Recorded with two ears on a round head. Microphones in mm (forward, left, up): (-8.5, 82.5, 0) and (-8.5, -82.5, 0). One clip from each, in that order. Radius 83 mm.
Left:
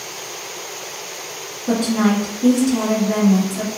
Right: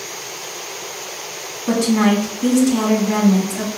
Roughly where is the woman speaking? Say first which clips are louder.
Right 2 dB; right.